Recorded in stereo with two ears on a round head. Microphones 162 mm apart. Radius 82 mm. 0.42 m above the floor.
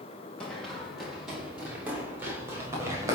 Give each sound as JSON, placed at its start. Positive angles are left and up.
{"t": 0.4, "sound": "running footsteps", "side_deg": 5, "distance_m": 5.5}